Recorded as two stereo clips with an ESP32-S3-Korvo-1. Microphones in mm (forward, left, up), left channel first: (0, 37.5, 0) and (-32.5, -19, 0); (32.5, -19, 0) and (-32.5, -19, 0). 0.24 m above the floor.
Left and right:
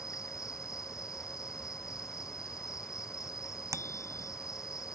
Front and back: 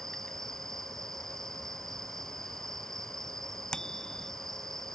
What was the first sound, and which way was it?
An insect, 85° left.